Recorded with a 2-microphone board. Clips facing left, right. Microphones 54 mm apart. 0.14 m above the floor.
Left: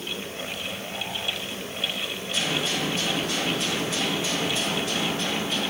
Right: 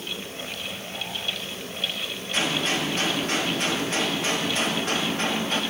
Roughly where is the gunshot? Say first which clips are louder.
Right 2 dB; right.